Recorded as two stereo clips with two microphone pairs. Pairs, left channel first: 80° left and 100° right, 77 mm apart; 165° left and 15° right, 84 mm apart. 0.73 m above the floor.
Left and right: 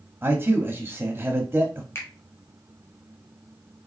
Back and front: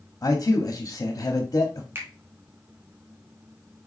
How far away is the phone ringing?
I don't hear a phone ringing.